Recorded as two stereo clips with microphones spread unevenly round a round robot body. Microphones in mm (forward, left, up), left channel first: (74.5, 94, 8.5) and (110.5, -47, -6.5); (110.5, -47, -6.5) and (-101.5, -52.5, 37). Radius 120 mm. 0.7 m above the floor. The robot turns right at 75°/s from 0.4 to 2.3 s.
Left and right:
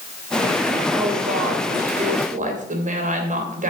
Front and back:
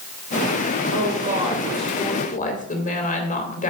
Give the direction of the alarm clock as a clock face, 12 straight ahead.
No alarm clock in this recording.